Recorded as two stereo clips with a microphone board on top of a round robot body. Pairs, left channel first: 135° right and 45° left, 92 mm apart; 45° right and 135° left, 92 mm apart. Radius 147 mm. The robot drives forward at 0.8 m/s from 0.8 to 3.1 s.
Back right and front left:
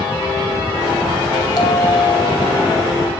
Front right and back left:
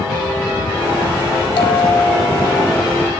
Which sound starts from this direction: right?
A bell, at 1.6 s.